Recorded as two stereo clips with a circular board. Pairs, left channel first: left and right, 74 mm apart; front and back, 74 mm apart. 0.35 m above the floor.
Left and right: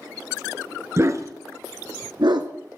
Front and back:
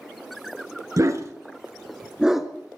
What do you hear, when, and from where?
1.0 s a dog barking: 140° right, 1.2 m; by 2.5 s 90° right, 1.1 m